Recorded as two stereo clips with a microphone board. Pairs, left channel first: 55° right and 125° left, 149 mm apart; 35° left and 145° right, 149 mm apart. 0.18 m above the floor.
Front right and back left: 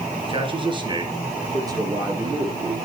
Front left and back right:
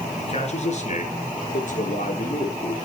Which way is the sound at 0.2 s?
75° left.